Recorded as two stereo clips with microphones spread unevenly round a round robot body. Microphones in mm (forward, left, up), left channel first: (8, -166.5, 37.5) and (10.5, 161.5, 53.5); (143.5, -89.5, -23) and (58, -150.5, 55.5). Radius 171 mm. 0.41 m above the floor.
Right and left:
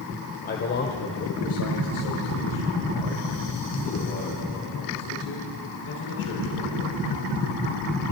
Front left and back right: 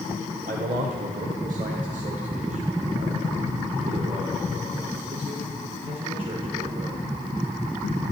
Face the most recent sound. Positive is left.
turn(degrees=-100)